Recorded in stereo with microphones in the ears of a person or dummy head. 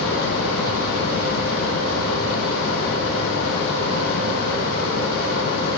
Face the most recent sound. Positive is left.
turn(degrees=75)  # may be behind; listen again after turning